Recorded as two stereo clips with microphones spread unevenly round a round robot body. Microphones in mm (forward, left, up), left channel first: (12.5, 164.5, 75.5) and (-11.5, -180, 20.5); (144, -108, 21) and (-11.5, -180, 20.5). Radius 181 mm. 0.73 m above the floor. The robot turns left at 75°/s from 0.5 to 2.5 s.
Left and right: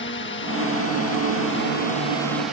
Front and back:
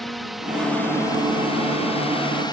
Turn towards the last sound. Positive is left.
turn(degrees=-20)